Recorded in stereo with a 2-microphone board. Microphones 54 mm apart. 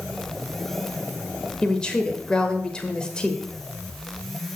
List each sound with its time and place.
1.6 s a woman speaking: 15° left (ahead or behind), 1.2 m